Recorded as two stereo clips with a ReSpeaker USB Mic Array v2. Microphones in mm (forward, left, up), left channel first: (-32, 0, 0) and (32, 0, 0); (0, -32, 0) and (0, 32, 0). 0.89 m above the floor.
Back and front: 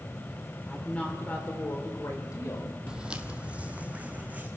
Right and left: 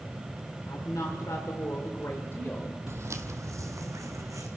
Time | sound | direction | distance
0.7 | a woman speaking | 105° right | 2.5 m
2.9 | footsteps | 70° left | 1.3 m